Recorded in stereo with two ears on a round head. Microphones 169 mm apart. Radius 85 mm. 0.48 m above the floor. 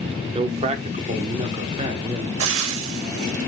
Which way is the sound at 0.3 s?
30° right (ahead or behind).